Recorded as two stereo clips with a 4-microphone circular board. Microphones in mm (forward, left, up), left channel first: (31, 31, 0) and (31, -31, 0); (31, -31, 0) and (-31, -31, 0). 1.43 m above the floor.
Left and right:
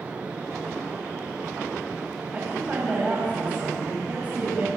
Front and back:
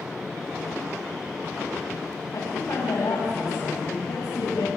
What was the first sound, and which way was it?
A woman speaking, 20° right.